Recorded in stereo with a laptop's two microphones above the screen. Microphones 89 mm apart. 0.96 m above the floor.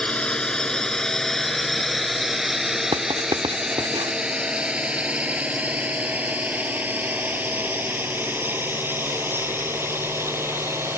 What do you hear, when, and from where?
0.0 s a drone: 10° left (ahead or behind); by 11.0 s 30° right (ahead or behind)
2.9 s writing: 65° right (ahead or behind)